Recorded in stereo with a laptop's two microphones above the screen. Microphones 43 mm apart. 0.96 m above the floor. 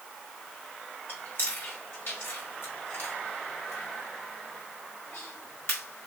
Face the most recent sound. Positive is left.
turn(degrees=70)  # may be behind; listen again after turning